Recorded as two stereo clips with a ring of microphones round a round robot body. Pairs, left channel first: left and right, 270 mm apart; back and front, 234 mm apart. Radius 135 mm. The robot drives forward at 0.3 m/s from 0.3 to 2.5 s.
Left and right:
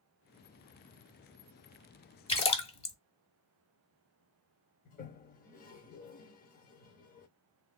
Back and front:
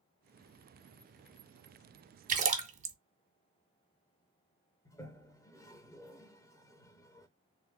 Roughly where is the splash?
Ahead left.